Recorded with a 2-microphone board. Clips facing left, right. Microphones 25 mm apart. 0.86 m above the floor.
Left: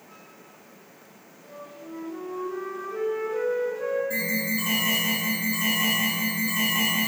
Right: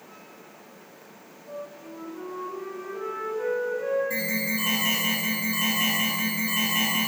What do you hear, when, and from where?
1.4 s a flute: 75° left (ahead or behind), 5 m
4.1 s an alarm: 10° right (ahead or behind), 4.5 m